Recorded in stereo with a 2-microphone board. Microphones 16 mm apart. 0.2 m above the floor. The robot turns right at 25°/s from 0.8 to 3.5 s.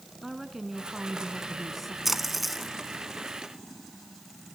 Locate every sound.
0.2 s a woman speaking: 20° right (ahead or behind), 2.5 m; by 1.9 s 5° left (ahead or behind), 2.5 m
2.0 s a splash: 10° right (ahead or behind), 2 m; by 2.7 s centre (ahead or behind), 2 m